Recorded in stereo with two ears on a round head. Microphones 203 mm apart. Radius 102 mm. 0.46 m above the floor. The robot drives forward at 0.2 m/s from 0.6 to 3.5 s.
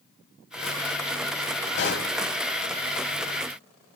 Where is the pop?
45° left (ahead or behind), 1.2 m.